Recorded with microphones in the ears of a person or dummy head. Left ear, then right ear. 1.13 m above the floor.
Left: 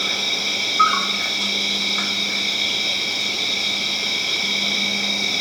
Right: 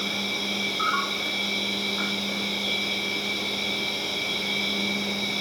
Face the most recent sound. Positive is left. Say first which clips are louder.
# left 6 dB
turn(degrees=70)  # may be behind; listen again after turning